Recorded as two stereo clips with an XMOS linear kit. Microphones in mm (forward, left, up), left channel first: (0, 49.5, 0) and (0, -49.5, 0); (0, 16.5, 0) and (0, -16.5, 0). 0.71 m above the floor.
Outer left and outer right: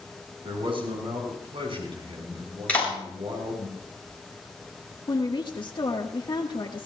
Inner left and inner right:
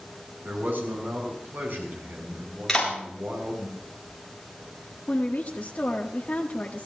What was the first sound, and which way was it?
A man speaking, 65° right (ahead or behind).